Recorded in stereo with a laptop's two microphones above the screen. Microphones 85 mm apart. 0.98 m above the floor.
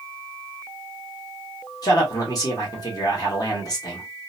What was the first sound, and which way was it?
A man speaking, 40° left (ahead or behind).